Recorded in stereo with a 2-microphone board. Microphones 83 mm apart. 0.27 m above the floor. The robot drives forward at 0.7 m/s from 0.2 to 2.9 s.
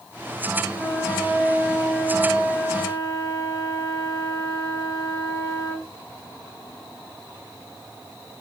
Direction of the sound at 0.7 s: 25° left (ahead or behind).